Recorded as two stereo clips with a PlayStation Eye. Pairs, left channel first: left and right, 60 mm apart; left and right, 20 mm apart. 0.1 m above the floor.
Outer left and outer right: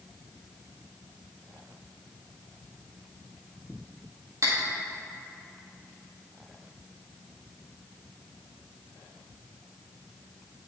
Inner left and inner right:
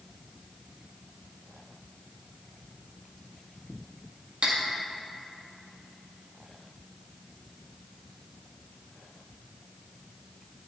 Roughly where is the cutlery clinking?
Right.